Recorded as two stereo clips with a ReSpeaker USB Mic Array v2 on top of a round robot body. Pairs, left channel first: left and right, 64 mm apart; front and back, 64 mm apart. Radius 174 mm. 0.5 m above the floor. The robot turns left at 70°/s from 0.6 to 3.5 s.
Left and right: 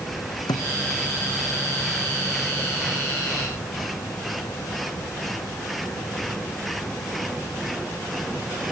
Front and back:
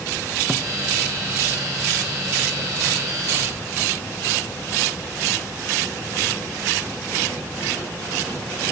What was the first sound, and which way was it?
A thud, 105° left.